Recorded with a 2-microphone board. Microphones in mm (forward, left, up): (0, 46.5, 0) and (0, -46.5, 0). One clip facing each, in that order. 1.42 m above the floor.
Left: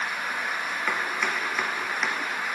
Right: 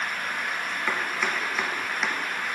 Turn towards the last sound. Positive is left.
turn(degrees=0)  # may be behind; listen again after turning